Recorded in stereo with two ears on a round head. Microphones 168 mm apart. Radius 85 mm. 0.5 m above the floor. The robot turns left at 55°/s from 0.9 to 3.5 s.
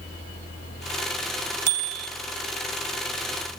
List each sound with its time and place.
1.7 s a bicycle bell: 25° right (ahead or behind), 2 m; by 2.1 s 45° right (ahead or behind), 2 m